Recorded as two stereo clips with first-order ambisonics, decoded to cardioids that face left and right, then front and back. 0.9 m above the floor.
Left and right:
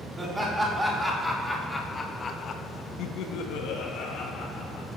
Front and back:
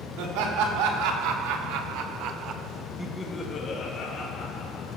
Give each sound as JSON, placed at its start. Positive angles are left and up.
{"t": 0.2, "sound": "laughter", "azimuth_deg": -170, "distance_m": 3.5}